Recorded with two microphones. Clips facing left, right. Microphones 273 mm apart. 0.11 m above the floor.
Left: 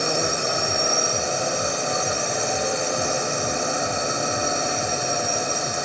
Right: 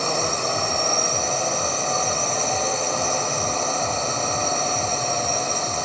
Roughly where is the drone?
Centre.